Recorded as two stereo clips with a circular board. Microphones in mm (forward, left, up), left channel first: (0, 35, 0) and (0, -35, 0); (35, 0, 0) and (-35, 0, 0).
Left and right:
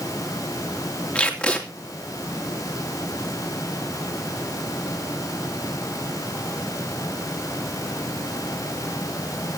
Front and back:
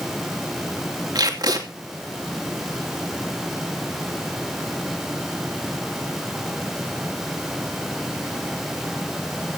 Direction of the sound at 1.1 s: 165° left.